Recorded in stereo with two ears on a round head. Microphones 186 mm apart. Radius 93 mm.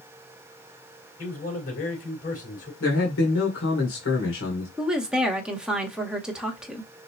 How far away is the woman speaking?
About 1.1 m.